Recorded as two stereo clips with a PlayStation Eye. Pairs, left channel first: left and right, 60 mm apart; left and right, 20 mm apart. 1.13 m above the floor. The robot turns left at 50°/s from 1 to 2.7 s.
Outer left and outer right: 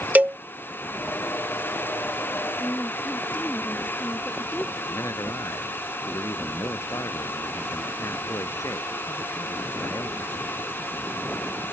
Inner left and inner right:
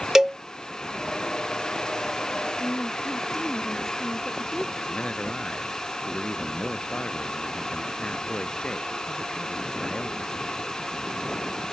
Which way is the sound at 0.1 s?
25° right (ahead or behind).